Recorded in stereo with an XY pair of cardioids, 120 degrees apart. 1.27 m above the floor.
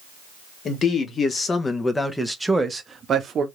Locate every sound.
0.7 s a man speaking: 40° left, 1.6 m; by 3.5 s 50° right, 1.0 m